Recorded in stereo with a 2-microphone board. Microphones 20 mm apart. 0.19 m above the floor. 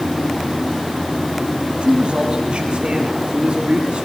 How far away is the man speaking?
About 5.5 m.